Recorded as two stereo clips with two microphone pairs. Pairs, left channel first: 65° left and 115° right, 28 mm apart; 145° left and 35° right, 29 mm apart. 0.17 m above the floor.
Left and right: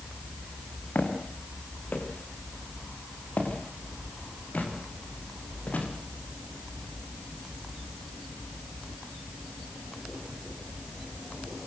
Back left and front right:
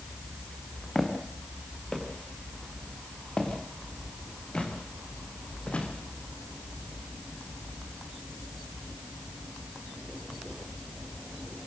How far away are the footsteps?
About 7 m.